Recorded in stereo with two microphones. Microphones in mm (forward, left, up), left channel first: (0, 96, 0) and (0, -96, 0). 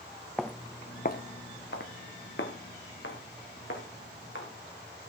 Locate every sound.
0.4 s footsteps: centre (ahead or behind), 0.9 m; by 4.5 s 80° left, 4 m